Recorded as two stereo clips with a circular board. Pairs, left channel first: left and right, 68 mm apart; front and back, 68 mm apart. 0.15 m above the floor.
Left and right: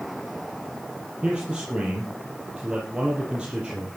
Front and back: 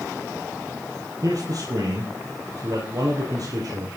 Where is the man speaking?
165° right, 4 m.